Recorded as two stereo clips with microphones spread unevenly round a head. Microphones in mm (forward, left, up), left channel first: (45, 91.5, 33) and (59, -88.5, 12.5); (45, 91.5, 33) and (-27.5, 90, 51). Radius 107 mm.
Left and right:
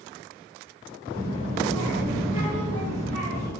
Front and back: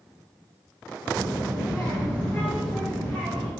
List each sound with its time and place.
1.1 s a child speaking: 85° right, 1.1 m